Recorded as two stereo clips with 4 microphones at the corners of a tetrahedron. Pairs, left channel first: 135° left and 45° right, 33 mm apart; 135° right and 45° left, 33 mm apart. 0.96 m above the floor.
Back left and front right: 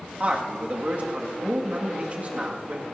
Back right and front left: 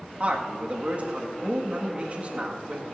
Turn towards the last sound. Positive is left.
turn(degrees=0)